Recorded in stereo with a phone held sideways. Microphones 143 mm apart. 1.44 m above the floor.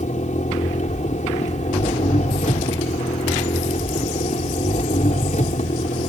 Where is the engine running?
65° left (ahead or behind).